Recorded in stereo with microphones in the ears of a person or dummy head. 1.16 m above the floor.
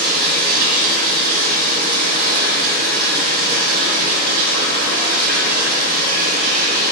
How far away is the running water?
About 0.8 m.